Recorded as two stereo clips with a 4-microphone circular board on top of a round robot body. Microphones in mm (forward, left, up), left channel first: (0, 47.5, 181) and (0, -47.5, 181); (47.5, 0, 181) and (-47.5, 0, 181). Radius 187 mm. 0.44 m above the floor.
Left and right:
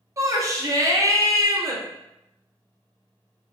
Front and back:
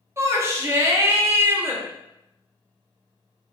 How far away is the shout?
About 0.9 m.